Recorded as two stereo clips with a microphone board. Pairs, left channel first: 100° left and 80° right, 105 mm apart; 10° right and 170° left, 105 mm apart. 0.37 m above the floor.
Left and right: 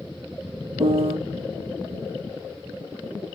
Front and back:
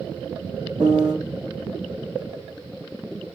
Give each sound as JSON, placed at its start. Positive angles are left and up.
{"t": 0.8, "sound": "a piano", "azimuth_deg": -110, "distance_m": 2.0}